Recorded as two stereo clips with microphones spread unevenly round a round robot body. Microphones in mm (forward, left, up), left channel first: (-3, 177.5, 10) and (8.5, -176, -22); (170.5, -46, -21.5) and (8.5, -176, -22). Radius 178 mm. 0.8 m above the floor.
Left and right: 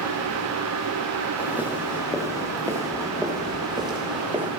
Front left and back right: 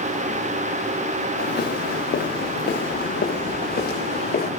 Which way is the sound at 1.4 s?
Straight ahead.